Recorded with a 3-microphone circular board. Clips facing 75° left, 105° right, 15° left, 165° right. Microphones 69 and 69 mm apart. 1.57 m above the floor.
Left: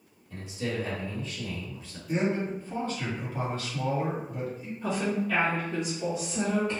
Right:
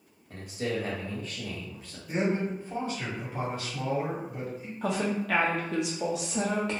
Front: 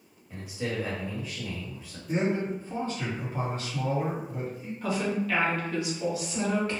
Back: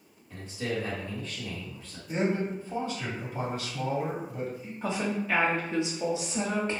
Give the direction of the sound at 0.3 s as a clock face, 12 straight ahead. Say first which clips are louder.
Right 1 dB, even; 2 o'clock.